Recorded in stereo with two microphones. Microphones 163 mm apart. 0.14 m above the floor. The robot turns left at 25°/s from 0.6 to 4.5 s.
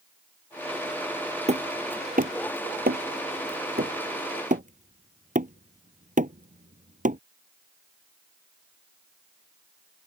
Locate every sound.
1.5 s hammering: 45° right (ahead or behind); by 7.2 s 50° right (ahead or behind)